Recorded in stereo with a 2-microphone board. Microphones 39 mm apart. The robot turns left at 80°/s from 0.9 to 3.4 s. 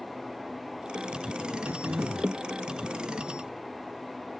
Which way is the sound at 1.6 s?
65° right.